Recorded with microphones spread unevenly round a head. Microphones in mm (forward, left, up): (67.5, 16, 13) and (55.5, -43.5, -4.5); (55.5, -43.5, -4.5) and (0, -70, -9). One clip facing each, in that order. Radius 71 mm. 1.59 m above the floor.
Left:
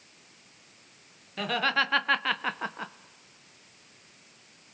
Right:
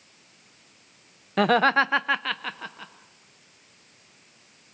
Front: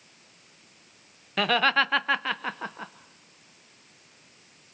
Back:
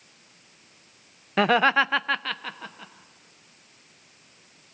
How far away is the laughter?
About 0.6 m.